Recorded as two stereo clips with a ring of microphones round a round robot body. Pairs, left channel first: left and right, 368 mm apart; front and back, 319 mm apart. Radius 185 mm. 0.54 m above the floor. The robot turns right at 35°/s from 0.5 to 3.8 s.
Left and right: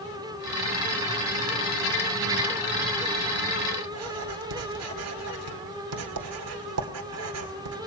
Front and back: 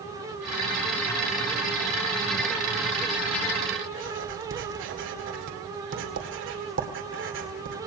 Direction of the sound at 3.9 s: 130° right.